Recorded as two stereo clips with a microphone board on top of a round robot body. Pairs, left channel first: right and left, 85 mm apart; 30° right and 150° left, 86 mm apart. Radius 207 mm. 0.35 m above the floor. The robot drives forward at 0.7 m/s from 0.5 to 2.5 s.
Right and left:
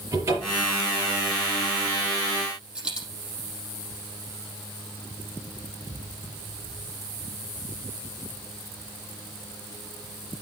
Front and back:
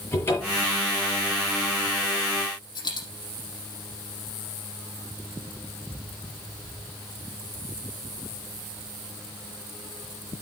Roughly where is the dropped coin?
Ahead.